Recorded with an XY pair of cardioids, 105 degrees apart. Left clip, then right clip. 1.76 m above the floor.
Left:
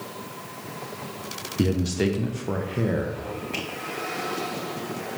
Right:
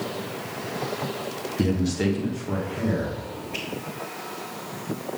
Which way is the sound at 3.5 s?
60° left.